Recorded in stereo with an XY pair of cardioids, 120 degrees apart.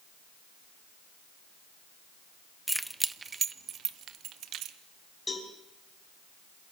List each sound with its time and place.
2.7 s keys jangling: straight ahead, 0.8 m; by 4.8 s 70° right, 1.6 m
5.3 s a cowbell: 20° left, 5 m